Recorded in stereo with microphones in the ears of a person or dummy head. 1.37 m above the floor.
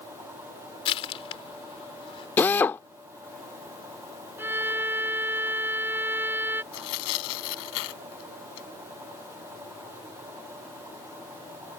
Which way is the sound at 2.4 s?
20° left (ahead or behind).